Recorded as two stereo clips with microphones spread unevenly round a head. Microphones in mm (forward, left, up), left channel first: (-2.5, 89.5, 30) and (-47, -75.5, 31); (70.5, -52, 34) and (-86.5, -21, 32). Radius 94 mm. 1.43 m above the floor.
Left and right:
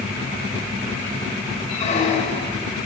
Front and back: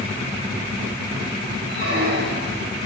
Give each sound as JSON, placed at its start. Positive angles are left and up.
{"t": 1.7, "sound": "a squeak", "azimuth_deg": 125, "distance_m": 3.0}